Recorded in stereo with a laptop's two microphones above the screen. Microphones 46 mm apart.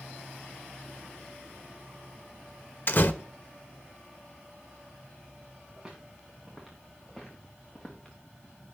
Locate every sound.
2.9 s a door slam: 50° left (ahead or behind), 0.7 m
5.8 s footsteps: 15° right (ahead or behind), 5.5 m; by 8.2 s 20° left (ahead or behind), 4.5 m